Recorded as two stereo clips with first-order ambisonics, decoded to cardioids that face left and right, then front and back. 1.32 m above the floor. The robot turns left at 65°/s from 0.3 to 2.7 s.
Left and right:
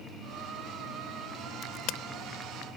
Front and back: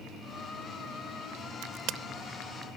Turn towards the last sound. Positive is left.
turn(degrees=80)